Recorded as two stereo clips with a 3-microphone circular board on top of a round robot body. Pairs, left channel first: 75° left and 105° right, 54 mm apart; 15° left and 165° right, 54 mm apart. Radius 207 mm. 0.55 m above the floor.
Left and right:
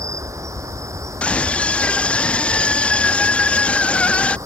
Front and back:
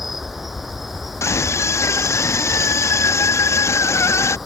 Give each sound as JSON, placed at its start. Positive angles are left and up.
{"t": 0.0, "sound": "an insect", "azimuth_deg": -80}
{"t": 1.2, "sound": "a scream", "azimuth_deg": 10}